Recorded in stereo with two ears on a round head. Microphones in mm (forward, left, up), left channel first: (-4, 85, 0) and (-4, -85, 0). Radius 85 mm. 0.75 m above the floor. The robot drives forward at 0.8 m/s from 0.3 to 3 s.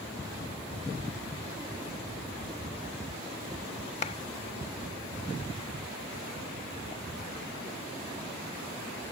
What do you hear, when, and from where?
4.0 s a clap: 35° left (ahead or behind)